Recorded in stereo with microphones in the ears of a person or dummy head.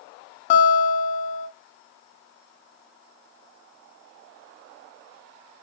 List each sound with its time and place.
0.5 s a guitar: 50° left (ahead or behind), 3 m